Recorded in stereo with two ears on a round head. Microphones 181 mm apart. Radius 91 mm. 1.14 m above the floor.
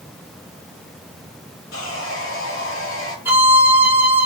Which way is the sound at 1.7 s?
80° left.